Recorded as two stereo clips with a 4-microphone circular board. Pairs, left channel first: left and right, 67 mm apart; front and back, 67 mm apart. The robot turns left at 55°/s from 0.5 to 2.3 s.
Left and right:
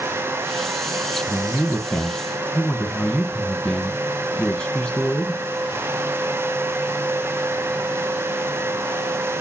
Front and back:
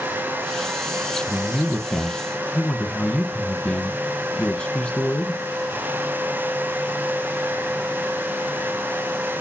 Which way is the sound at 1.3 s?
105° left.